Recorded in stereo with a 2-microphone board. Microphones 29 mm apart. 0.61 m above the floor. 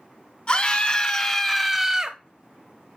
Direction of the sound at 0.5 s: 35° left (ahead or behind).